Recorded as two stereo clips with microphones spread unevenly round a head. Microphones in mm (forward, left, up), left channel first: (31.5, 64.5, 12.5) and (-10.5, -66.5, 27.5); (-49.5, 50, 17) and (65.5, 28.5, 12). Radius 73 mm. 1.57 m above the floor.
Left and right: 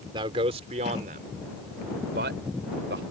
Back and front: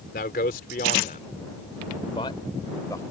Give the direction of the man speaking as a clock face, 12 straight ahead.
6 o'clock.